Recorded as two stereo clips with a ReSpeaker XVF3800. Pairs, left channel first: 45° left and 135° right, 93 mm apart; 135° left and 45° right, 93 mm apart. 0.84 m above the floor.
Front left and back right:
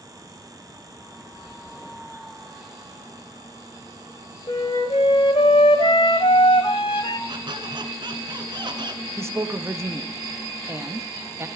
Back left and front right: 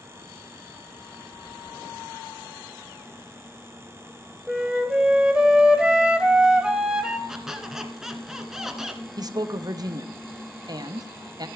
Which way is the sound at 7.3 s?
130° right.